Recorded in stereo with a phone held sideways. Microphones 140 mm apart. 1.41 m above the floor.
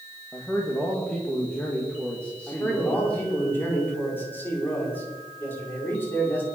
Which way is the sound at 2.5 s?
15° left (ahead or behind).